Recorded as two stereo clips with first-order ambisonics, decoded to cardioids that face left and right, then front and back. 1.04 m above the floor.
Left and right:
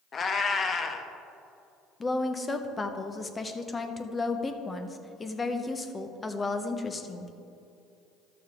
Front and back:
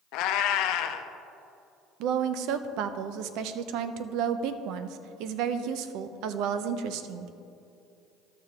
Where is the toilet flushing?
No toilet flushing in this recording.